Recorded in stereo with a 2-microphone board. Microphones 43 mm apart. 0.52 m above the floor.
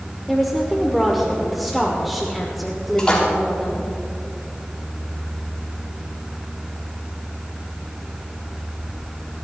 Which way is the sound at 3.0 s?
20° left (ahead or behind).